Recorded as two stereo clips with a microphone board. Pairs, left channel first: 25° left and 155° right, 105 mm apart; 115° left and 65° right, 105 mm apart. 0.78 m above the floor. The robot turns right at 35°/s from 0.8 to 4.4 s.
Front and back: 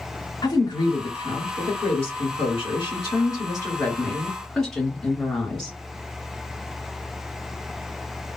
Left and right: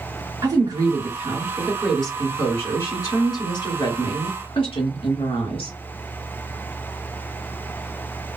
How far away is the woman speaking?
About 2 m.